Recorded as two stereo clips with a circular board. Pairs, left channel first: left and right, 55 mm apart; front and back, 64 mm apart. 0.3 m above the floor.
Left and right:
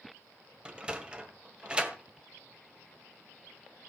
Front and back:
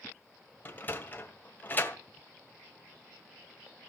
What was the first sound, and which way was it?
A sliding door, 30° right.